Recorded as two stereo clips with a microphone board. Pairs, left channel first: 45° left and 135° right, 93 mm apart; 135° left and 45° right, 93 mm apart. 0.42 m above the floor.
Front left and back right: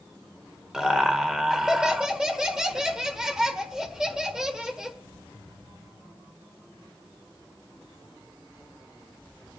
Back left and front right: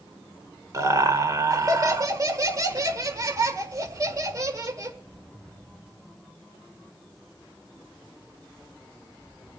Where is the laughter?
55° right, 1.6 m.